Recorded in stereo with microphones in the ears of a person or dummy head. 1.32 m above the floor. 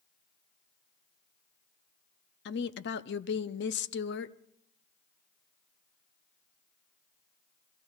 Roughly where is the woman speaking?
Left.